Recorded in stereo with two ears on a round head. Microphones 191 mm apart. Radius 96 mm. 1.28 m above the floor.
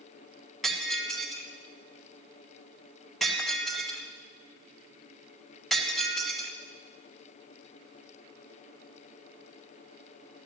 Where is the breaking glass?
Centre (ahead or behind), 2 m.